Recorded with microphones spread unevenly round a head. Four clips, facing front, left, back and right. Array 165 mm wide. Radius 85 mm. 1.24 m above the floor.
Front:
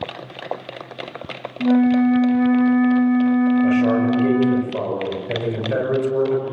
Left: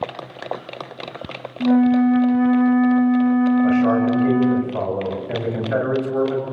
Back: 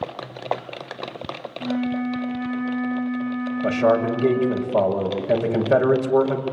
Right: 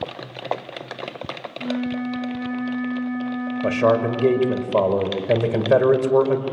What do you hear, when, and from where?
1.6 s a flute: 45° left, 1.4 m
3.6 s a man speaking: 105° right, 6.5 m